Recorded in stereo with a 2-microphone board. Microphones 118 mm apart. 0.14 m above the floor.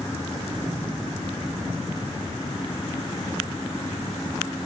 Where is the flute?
No flute in this recording.